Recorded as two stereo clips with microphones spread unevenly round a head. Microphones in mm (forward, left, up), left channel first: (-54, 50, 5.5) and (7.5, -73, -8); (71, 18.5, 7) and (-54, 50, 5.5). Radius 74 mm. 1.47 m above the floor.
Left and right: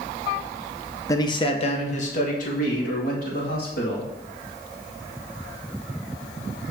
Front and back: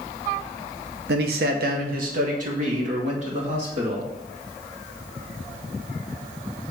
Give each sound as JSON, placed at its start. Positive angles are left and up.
{"t": 1.1, "sound": "a man speaking", "azimuth_deg": -175, "distance_m": 0.9}